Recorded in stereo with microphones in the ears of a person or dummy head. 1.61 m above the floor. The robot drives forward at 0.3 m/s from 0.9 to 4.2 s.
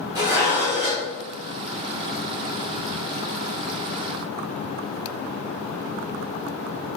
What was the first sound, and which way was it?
Dishes clattering, 20° right (ahead or behind).